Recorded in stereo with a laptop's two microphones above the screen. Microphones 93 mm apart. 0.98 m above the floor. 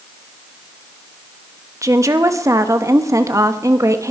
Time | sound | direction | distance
1.8 | a woman speaking | 35° right (ahead or behind) | 1.4 m